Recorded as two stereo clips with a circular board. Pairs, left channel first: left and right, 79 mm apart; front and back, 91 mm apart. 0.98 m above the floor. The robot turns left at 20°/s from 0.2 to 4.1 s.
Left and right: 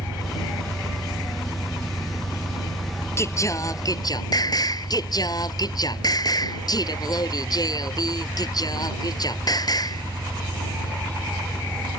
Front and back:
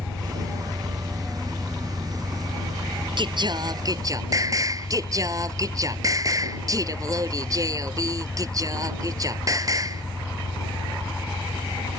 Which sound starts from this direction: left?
An engine running, at 0.0 s.